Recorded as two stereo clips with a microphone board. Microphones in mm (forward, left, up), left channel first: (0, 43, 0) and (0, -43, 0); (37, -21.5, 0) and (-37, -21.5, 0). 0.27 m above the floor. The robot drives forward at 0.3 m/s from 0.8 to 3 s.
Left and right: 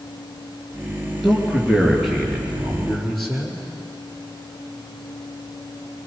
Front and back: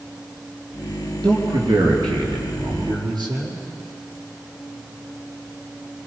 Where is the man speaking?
Straight behind, 4 m.